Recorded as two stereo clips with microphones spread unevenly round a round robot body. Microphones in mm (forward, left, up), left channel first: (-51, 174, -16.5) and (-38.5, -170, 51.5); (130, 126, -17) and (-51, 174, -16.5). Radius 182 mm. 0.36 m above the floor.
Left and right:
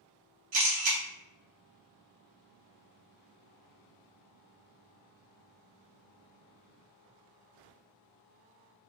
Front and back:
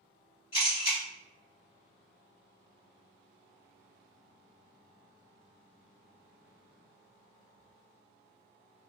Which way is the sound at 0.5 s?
65° right.